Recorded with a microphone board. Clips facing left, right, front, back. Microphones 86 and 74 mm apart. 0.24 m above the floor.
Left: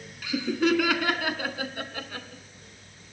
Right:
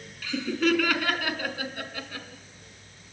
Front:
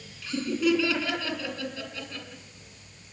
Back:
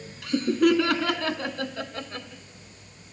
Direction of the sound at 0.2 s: 170° left.